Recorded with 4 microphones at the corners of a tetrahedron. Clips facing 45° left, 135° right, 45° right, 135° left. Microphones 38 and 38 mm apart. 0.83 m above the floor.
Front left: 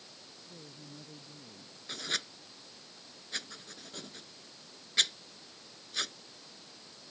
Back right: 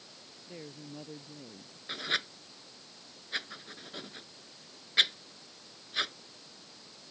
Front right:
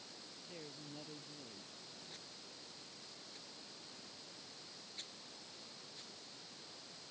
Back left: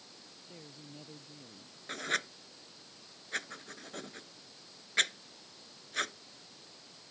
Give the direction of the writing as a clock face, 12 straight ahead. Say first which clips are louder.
Back right 4 dB, back left 20 dB; 7 o'clock.